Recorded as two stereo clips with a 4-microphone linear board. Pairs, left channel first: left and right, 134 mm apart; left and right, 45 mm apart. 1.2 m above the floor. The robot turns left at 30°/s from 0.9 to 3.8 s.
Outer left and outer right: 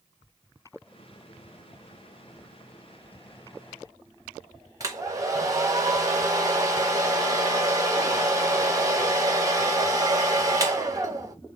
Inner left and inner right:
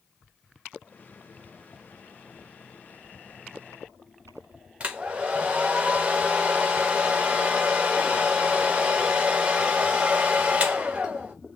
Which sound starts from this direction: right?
A hair dryer, at 4.8 s.